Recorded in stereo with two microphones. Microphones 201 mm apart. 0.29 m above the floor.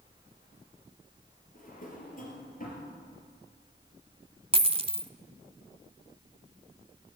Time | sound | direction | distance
1.6 | a drawer | 40° left (ahead or behind) | 3.5 m
4.5 | a dropped coin | 30° right (ahead or behind) | 0.5 m